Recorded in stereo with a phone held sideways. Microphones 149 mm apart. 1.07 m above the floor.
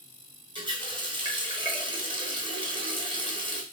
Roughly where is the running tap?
Right.